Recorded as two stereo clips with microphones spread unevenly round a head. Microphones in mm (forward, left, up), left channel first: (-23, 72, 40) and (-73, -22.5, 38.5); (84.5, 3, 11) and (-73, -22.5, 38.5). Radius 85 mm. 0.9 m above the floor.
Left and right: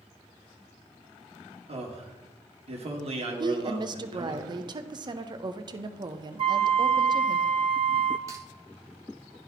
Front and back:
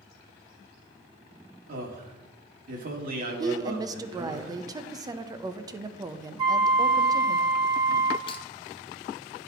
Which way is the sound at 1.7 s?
135° right.